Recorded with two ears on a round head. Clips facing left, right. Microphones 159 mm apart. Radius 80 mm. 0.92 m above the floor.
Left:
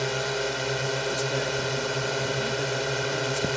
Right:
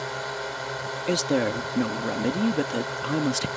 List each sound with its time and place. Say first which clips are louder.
0.0 s a drone: left 4 dB; 35° left (ahead or behind)
1.1 s a woman speaking: right 4 dB; 75° right (ahead or behind)